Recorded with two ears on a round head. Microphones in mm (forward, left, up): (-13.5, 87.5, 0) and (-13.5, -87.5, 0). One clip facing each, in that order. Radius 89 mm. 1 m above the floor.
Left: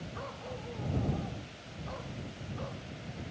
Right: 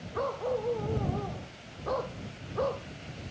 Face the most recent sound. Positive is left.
turn(degrees=-70)  # may be behind; listen again after turning